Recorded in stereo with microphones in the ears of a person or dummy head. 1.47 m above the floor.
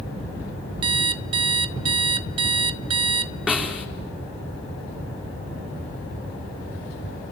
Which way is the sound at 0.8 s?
30° right (ahead or behind).